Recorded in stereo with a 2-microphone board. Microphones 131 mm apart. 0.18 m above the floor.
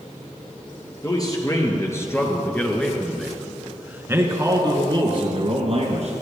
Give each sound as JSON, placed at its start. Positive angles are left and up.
{"t": 1.0, "sound": "a man speaking", "side_deg": 30, "distance_m": 3.5}